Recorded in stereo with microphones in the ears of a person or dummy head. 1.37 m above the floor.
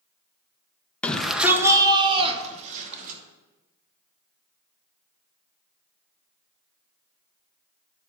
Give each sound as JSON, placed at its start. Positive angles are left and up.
{"t": 1.0, "sound": "a shout", "side_deg": 10, "distance_m": 1.2}